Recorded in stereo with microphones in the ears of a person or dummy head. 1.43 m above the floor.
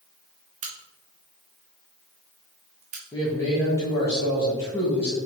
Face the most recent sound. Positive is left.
turn(degrees=15)  # may be behind; listen again after turning